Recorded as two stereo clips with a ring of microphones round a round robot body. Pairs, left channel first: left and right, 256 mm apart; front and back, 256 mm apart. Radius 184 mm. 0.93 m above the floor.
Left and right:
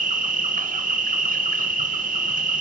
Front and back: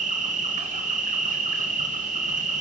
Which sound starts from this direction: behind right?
An insect, at 0.0 s.